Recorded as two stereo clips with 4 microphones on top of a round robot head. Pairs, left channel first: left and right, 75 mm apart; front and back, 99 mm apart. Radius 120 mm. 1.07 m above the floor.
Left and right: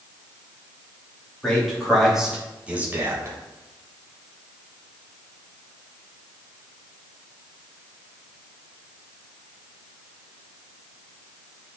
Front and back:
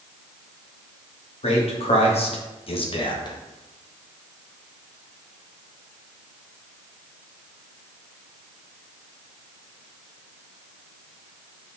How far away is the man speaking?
About 3 m.